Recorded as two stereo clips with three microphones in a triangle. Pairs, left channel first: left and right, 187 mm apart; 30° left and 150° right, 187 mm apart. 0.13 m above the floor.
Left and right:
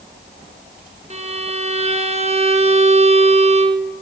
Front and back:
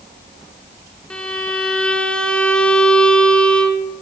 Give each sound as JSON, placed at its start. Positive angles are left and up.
{"t": 1.1, "sound": "a violin", "azimuth_deg": -55, "distance_m": 1.2}